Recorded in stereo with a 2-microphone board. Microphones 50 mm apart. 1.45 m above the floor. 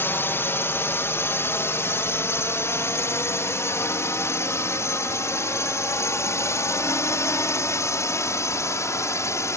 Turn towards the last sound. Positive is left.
turn(degrees=75)  # may be behind; listen again after turning